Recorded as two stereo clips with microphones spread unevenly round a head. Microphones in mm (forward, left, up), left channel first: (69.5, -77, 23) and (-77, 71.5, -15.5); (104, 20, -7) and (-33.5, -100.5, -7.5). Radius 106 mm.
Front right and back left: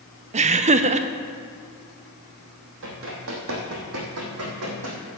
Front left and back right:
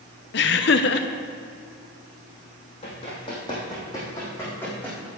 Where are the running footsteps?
100° left, 3 m; by 5.1 s 125° left, 3.5 m.